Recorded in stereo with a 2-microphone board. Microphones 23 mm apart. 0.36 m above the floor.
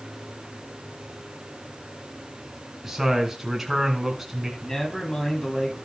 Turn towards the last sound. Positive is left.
turn(degrees=20)  # may be behind; listen again after turning